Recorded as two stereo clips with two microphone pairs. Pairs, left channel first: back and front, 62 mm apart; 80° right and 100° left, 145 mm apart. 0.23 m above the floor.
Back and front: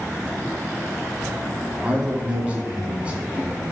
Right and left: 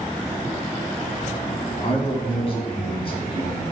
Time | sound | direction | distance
1.8 | a man speaking | 65° right | 1.9 m